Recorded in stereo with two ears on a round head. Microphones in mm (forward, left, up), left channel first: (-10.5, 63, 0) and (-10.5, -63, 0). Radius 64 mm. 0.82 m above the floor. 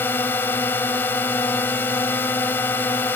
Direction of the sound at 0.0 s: 15° left (ahead or behind).